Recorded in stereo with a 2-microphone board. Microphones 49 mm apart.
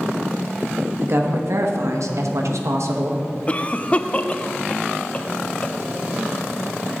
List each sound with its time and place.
1.0 s a woman speaking: 55° right (ahead or behind), 1.8 m; by 3.2 s 65° right (ahead or behind), 1.4 m
3.5 s a cough: 25° left (ahead or behind), 0.7 m